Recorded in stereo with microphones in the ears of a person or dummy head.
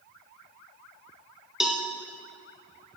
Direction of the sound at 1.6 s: 5° right (ahead or behind).